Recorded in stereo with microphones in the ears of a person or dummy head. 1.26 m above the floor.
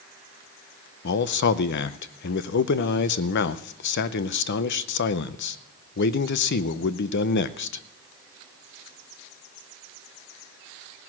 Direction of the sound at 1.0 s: 60° left (ahead or behind).